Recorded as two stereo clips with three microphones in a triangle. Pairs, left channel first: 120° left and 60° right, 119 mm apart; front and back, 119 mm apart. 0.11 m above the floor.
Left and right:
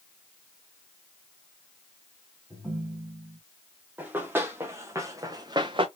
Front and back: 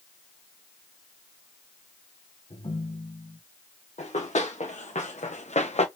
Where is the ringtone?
20° left, 2.5 m.